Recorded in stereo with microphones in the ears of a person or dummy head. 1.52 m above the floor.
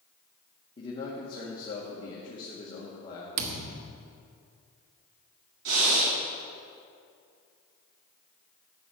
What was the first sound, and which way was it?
A man speaking, 30° left (ahead or behind).